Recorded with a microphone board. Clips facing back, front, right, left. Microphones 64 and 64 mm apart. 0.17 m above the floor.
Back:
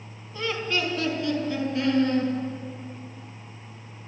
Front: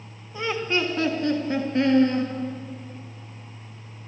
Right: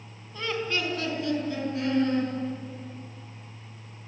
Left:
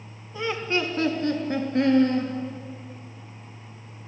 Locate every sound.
0.3 s laughter: 35° left, 1.1 m; by 2.3 s 50° left, 3 m